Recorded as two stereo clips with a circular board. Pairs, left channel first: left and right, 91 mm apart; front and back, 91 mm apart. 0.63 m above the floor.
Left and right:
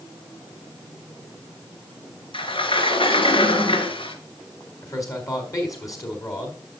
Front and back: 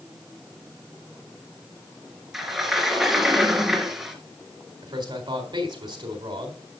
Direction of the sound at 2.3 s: 95° left.